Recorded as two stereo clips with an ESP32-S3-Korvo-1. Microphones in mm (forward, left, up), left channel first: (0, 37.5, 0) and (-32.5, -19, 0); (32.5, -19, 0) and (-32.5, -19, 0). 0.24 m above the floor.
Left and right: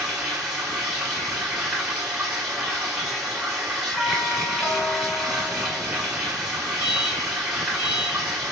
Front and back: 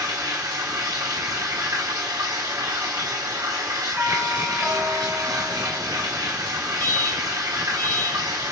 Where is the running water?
160° left, 3 m.